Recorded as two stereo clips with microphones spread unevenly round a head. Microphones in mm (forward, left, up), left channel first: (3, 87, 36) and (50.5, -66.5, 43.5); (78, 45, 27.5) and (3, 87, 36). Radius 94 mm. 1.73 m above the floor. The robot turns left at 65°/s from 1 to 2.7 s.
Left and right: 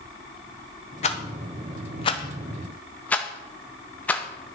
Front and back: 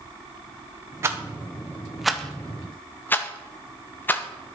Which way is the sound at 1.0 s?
135° left.